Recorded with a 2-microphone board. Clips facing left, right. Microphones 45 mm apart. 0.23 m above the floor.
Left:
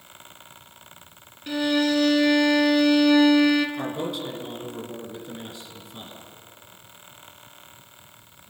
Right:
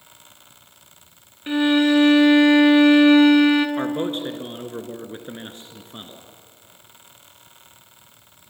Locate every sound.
1.5 s a violin: 30° right (ahead or behind), 1.6 m
3.8 s a man speaking: 40° right (ahead or behind), 2.5 m